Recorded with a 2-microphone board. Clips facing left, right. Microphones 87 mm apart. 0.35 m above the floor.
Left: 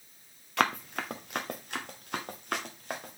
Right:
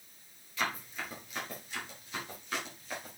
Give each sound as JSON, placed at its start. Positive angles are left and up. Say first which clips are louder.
{"t": 0.6, "sound": "running footsteps", "louder": "left 7 dB", "side_deg": 65, "distance_m": 1.6}